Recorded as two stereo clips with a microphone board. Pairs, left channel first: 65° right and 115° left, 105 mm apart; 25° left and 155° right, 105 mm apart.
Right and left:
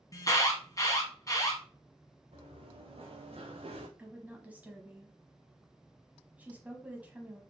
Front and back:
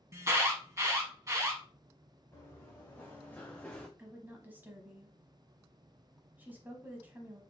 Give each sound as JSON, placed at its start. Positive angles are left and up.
{"t": 0.1, "sound": "an alarm", "azimuth_deg": -110, "distance_m": 1.1}
{"t": 2.3, "sound": "running footsteps", "azimuth_deg": 95, "distance_m": 2.0}
{"t": 4.0, "sound": "a woman speaking", "azimuth_deg": 160, "distance_m": 1.0}